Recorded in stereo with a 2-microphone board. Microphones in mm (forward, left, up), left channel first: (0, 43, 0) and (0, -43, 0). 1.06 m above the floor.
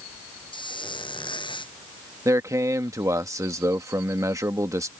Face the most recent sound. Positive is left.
turn(degrees=-40)  # may be behind; listen again after turning